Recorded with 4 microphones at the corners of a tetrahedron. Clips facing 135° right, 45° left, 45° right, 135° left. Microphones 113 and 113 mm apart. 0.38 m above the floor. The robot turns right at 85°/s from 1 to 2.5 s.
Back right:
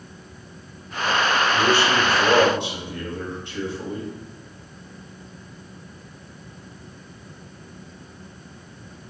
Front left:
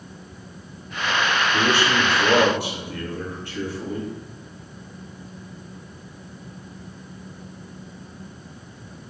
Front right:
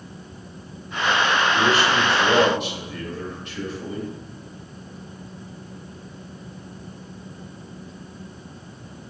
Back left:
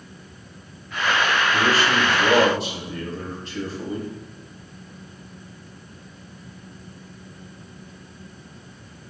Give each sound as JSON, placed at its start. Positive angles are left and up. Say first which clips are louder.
{"t": 1.5, "sound": "a man speaking", "louder": "even, even", "azimuth_deg": 85, "distance_m": 1.0}